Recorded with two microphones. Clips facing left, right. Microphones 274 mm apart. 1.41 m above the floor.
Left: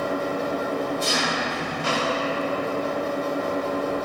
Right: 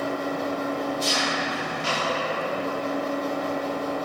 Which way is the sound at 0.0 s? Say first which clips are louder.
Left 2 dB; 60° left (ahead or behind).